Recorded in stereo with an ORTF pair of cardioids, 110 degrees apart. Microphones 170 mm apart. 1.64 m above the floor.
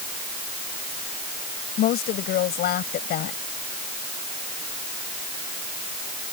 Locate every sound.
1.8 s a woman speaking: 65° left